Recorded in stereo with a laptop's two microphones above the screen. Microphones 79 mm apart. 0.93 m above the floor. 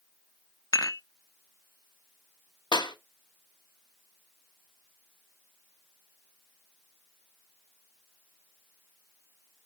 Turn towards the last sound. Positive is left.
turn(degrees=70)  # may be behind; listen again after turning